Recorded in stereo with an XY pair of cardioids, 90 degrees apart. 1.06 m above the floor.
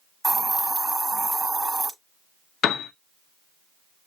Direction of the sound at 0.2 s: 15° right.